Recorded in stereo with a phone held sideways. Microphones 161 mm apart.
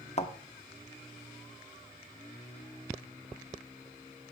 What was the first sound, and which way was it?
A thud, 45° left (ahead or behind).